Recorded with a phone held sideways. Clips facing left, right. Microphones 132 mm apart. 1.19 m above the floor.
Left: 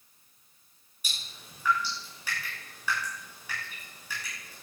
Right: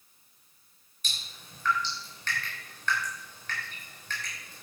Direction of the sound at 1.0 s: 10° left (ahead or behind).